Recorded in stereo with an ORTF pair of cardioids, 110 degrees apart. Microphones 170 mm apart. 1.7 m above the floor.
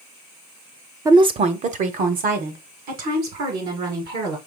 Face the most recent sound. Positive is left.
turn(degrees=-70)